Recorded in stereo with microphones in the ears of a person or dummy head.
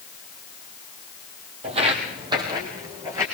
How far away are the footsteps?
About 3 m.